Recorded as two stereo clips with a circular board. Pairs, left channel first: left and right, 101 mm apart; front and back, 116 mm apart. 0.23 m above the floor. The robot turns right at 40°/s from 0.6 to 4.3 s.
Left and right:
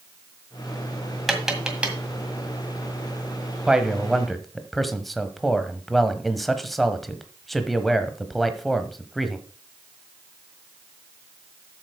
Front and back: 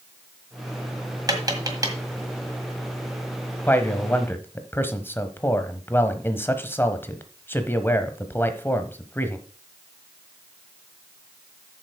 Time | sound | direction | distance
1.3 | tapping | straight behind | 1.7 m
3.7 | a man speaking | 25° right | 1.0 m